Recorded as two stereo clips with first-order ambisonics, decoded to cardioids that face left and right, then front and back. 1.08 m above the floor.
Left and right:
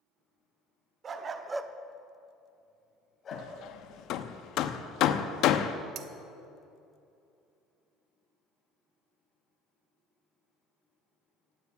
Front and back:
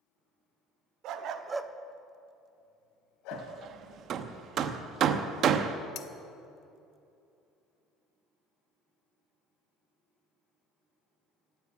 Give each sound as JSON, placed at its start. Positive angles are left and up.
{"t": 1.0, "sound": "a dog barking", "azimuth_deg": -150, "distance_m": 1.1}
{"t": 3.3, "sound": "hammering", "azimuth_deg": 130, "distance_m": 0.8}
{"t": 6.0, "sound": "cutlery clinking", "azimuth_deg": -45, "distance_m": 0.9}